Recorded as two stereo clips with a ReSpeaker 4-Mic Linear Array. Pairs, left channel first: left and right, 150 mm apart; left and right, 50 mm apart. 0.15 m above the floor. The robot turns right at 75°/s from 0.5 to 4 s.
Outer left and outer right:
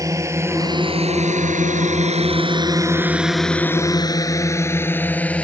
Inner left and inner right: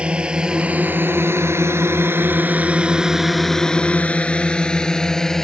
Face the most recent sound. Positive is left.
turn(degrees=5)  # may be behind; listen again after turning